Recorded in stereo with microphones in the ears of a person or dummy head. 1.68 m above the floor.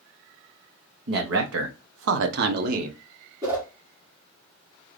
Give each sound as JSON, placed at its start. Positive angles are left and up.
{"t": 1.1, "sound": "a man speaking", "side_deg": -60, "distance_m": 1.0}
{"t": 3.4, "sound": "a whoosh", "side_deg": -20, "distance_m": 1.1}